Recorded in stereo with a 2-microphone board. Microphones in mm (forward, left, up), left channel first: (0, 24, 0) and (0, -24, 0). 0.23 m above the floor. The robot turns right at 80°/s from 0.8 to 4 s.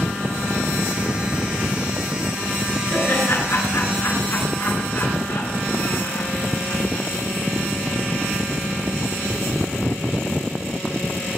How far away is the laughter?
About 4 m.